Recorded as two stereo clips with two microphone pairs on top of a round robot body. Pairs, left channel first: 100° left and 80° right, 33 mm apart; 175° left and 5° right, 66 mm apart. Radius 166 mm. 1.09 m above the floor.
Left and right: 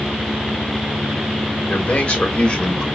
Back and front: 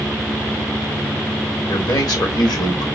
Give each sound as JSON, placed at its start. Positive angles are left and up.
{"t": 1.7, "sound": "a man speaking", "azimuth_deg": 150, "distance_m": 2.5}